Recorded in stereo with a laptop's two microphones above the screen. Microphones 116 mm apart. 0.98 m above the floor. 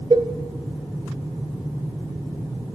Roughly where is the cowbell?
Right.